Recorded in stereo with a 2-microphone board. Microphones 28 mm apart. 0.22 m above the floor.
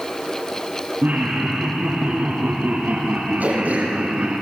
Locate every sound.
1.0 s laughter: 65° right (ahead or behind), 6.5 m; by 4.4 s 55° right (ahead or behind), 2.5 m
3.4 s throat clearing: 70° right (ahead or behind), 6 m